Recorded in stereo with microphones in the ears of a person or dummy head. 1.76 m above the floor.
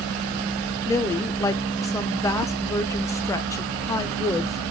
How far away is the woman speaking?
About 0.9 m.